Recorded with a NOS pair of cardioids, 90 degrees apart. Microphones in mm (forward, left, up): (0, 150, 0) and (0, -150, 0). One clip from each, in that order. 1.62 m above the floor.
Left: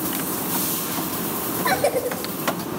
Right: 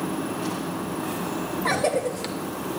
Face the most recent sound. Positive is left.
turn(degrees=10)